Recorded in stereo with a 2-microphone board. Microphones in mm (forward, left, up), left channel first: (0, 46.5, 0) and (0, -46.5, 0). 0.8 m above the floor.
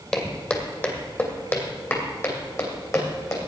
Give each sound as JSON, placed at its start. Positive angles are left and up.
{"t": 0.1, "sound": "footsteps", "side_deg": 10, "distance_m": 1.7}